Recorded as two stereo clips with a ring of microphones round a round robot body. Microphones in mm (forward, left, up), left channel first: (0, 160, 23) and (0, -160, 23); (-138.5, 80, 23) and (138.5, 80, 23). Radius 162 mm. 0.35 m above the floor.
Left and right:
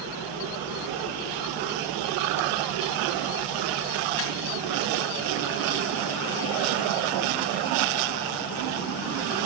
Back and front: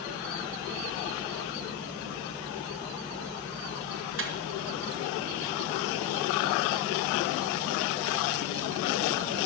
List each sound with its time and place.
4.2 s a microwave: 40° left, 2.5 m